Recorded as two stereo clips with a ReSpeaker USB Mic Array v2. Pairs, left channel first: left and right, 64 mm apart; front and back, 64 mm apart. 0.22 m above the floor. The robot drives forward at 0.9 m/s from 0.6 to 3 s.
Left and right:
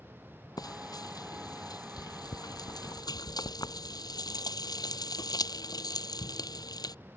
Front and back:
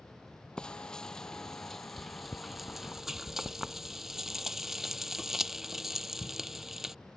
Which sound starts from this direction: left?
Frying, at 0.6 s.